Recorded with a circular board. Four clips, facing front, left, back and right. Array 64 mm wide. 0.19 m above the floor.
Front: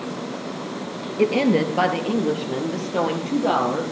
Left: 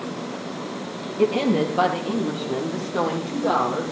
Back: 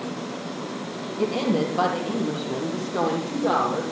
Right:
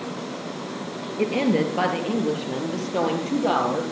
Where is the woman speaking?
15° right, 3 m; by 3.8 s 45° right, 4 m.